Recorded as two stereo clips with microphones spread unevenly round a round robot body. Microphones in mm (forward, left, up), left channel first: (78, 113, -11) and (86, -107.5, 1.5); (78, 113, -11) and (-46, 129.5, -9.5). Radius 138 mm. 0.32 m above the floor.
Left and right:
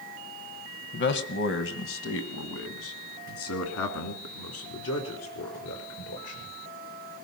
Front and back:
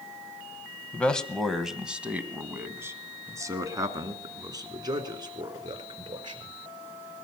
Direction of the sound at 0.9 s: 70° left.